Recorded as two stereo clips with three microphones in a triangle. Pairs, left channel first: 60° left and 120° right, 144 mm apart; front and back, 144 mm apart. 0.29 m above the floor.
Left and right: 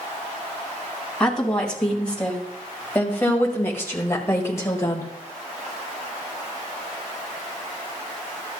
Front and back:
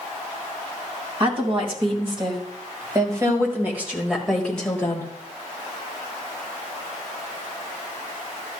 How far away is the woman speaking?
About 2.5 m.